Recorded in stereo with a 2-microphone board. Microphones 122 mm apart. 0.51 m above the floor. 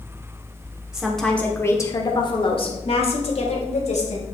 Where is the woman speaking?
5° right (ahead or behind), 1.3 m; by 4.2 s 70° left (ahead or behind), 2.5 m.